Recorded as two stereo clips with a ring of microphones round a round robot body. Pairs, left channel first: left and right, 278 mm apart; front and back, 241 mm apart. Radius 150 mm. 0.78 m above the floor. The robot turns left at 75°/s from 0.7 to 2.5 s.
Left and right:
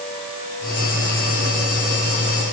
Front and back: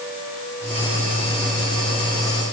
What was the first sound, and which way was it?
Only background noise.